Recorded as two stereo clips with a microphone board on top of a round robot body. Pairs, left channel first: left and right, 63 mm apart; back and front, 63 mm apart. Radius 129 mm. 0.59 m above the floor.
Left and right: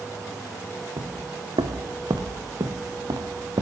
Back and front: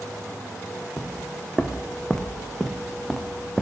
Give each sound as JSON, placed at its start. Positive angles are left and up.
{"t": 1.0, "sound": "footsteps", "azimuth_deg": -105, "distance_m": 1.4}